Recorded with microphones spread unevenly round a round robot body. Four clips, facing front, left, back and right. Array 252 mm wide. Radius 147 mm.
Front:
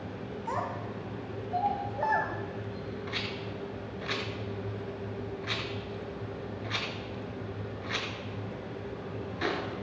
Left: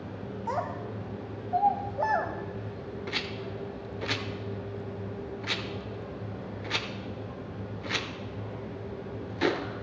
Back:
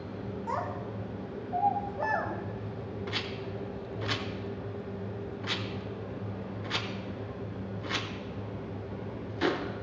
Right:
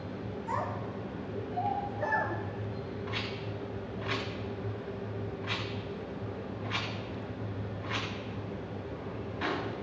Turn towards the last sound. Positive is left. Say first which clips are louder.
# left 2 dB, back 1 dB
turn(degrees=110)